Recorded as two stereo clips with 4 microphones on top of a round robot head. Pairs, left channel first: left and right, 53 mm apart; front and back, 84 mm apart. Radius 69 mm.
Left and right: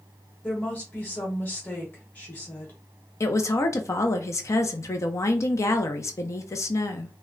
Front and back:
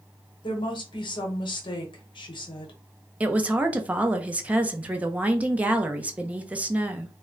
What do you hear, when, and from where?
0.4 s a woman speaking: 25° left, 1.0 m
3.2 s a woman speaking: 105° left, 0.6 m